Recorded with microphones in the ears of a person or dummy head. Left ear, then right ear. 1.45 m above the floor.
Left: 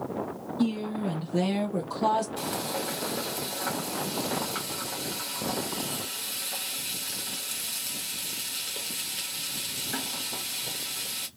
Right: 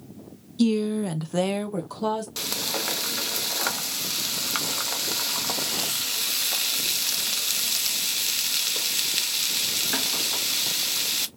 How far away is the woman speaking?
About 0.9 m.